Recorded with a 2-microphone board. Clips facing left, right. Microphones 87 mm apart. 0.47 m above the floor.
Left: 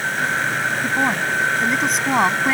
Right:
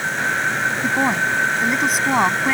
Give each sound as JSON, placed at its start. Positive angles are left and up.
{"t": 0.8, "sound": "a woman speaking", "side_deg": -10}